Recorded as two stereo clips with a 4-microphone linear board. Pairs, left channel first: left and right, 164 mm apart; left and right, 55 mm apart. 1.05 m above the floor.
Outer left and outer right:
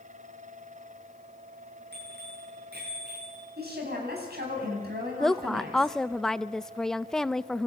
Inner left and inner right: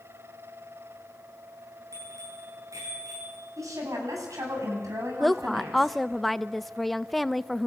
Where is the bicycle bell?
80° right, 10 m; by 3.5 s 85° right, 10.5 m.